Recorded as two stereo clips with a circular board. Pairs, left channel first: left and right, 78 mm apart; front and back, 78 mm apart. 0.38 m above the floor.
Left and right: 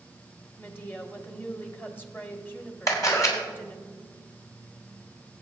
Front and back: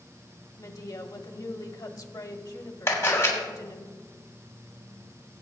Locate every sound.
0.6 s a woman speaking: 30° left, 1.4 m
2.9 s a camera shutter: 55° left, 3 m